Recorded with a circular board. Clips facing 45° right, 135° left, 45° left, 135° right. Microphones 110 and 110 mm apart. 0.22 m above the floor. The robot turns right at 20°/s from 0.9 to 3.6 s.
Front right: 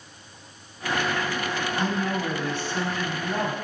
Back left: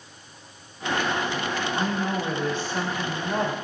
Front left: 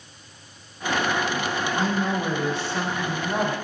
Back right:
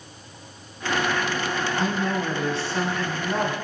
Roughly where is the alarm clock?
No alarm clock in this recording.